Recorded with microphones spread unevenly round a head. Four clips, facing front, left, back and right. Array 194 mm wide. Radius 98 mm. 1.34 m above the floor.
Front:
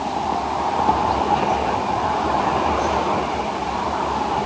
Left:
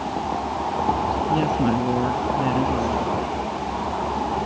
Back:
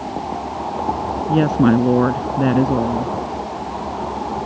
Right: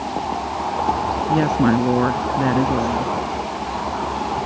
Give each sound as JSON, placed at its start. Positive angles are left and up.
{"t": 1.3, "sound": "a woman speaking", "azimuth_deg": -165}